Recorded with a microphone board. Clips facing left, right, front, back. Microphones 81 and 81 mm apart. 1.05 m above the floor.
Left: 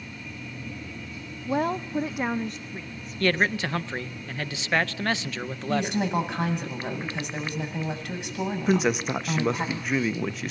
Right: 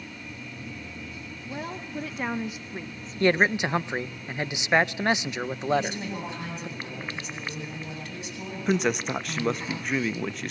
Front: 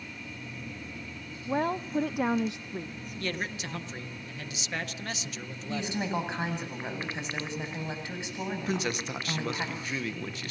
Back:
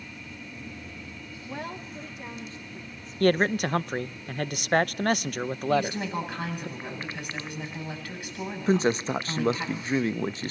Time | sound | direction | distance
1.5 | a woman speaking | 60° left | 0.7 m
3.2 | a man speaking | 160° right | 0.5 m
5.7 | a woman speaking | 70° left | 8.5 m
8.7 | a man speaking | straight behind | 0.9 m